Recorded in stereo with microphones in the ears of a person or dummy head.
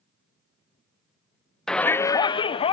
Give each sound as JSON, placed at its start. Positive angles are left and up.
{"t": 1.7, "sound": "a shout", "side_deg": 0, "distance_m": 0.6}